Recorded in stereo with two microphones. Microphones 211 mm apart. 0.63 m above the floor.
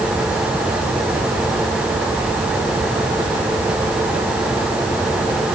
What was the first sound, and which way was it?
Only background noise.